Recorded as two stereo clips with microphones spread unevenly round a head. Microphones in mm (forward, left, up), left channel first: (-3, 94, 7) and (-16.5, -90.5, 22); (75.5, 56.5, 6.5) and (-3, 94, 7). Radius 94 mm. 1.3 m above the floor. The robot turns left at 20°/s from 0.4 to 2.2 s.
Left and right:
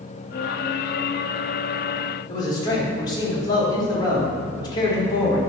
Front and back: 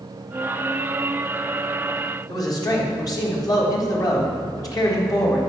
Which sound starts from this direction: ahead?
A man speaking, at 2.3 s.